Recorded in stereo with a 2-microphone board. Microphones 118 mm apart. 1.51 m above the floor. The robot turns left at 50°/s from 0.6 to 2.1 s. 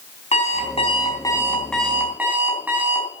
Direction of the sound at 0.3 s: 60° left.